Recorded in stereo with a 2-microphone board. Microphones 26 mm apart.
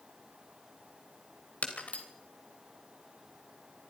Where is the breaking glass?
70° left (ahead or behind), 3.5 m.